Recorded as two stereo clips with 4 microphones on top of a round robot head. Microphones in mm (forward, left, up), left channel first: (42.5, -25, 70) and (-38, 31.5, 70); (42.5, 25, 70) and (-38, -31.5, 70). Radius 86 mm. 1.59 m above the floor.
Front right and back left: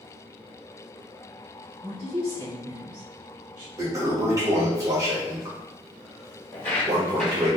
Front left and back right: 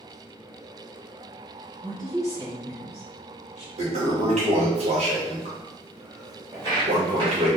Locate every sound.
1.8 s a woman speaking: 160° left, 1.9 m; by 3.7 s 120° left, 1.7 m
3.8 s a toilet flushing: 155° right, 1.7 m
6.5 s footsteps: 100° right, 1.9 m; by 7.6 s 140° right, 1.7 m